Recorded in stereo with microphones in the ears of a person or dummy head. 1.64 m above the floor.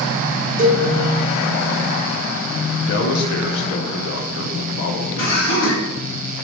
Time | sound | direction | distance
0.6 | a cowbell | 40° right (ahead or behind) | 0.7 m
2.9 | a man speaking | 60° left (ahead or behind) | 0.5 m
5.2 | laughter | 60° left (ahead or behind) | 1.5 m